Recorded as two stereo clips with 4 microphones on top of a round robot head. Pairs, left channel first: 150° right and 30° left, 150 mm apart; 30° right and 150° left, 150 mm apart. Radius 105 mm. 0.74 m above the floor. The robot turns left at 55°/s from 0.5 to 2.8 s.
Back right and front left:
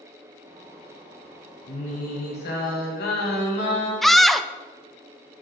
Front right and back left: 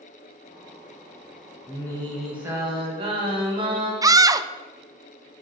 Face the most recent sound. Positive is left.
turn(degrees=125)